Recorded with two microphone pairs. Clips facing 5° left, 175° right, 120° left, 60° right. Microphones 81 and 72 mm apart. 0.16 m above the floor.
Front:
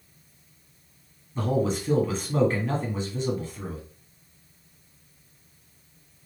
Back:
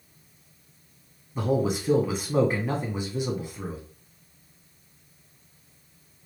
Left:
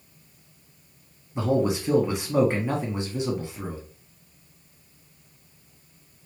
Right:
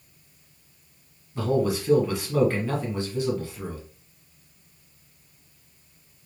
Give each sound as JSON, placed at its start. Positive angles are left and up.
{"t": 1.4, "sound": "a man speaking", "azimuth_deg": 125, "distance_m": 1.1}